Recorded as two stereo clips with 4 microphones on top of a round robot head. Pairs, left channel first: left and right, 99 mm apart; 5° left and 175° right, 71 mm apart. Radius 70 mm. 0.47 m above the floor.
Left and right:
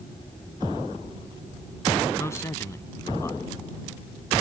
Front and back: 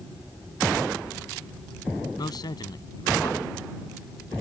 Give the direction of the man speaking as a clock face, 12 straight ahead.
11 o'clock.